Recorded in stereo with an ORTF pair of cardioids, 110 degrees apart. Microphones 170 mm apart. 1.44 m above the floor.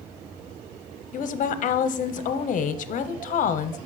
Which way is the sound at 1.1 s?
55° left.